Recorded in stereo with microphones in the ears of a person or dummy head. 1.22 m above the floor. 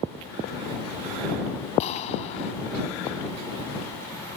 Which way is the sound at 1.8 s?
40° left (ahead or behind).